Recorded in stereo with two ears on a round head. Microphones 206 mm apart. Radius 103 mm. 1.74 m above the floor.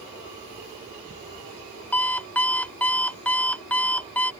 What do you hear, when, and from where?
1.9 s an alarm clock: 5° left (ahead or behind)